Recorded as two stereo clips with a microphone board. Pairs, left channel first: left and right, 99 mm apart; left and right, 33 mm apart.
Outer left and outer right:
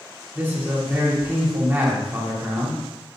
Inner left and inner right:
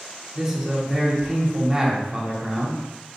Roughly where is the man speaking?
Centre.